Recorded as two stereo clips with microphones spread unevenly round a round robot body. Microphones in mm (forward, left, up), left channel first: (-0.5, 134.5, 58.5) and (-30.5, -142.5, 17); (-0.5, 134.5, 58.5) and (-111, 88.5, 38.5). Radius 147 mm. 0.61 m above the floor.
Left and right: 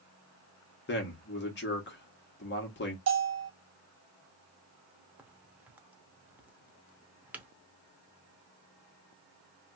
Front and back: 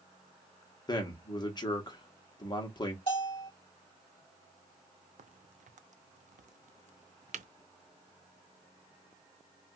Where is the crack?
Straight behind, 0.5 m.